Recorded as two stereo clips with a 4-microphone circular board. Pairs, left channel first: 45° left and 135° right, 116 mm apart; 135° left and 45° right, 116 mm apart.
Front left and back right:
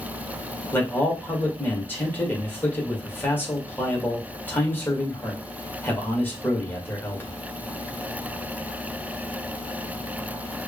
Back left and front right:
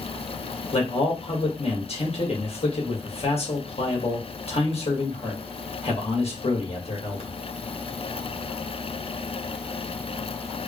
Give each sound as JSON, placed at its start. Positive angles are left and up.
{"t": 0.7, "sound": "a man speaking", "azimuth_deg": 115, "distance_m": 1.7}